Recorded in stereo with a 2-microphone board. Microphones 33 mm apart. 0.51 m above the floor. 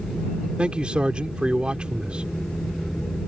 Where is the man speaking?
40° right (ahead or behind).